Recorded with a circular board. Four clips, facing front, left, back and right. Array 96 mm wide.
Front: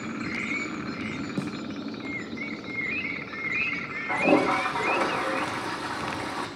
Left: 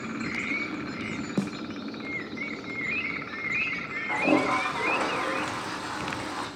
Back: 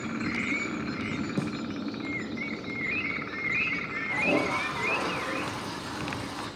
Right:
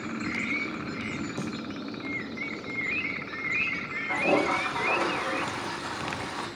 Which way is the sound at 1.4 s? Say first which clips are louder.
Left 8 dB, even; 90° left.